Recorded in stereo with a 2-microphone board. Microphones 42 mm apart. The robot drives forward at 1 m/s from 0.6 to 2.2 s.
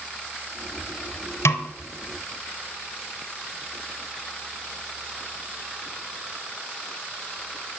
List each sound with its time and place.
1.4 s a snare drum: 90° left, 0.6 m; by 1.7 s 70° left (ahead or behind), 0.7 m